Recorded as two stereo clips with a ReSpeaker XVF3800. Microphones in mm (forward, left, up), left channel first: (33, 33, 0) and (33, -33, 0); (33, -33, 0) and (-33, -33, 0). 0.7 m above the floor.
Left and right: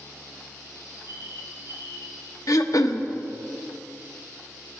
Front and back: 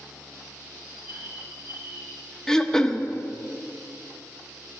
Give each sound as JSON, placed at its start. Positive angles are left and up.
{"t": 0.8, "sound": "a bird", "azimuth_deg": -140, "distance_m": 4.0}
{"t": 2.5, "sound": "throat clearing", "azimuth_deg": 80, "distance_m": 0.7}